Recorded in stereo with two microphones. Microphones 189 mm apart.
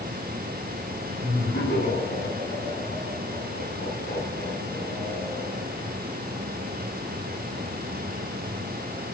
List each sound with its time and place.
1.2 s laughter: 55° left (ahead or behind), 5.5 m; by 5.6 s 85° left, 8.5 m